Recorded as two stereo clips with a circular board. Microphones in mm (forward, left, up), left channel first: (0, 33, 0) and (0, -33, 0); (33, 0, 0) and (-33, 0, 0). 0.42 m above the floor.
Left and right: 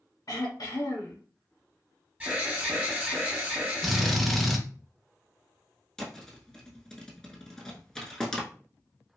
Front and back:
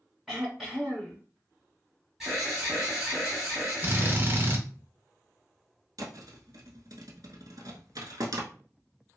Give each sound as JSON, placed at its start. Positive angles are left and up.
{"t": 0.3, "sound": "throat clearing", "azimuth_deg": 95, "distance_m": 1.6}
{"t": 2.2, "sound": "an alarm", "azimuth_deg": -115, "distance_m": 1.8}
{"t": 3.8, "sound": "a drill", "azimuth_deg": 180, "distance_m": 0.6}
{"t": 6.0, "sound": "a thud", "azimuth_deg": 170, "distance_m": 0.8}